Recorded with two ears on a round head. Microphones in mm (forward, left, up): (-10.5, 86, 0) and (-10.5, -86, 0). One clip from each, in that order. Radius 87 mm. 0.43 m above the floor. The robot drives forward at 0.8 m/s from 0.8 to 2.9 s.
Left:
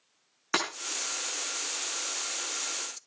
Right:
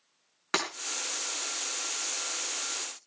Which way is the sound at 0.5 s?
Centre (ahead or behind).